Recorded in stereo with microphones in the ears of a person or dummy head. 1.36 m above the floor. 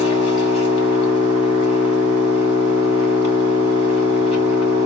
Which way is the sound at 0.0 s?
40° left (ahead or behind).